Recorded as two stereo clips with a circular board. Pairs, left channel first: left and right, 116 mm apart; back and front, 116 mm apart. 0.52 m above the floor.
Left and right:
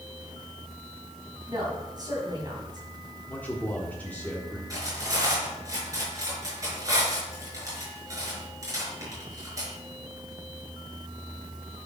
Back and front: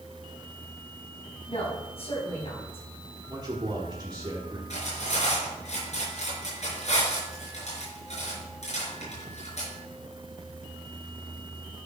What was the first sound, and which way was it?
A woman speaking, 145° right.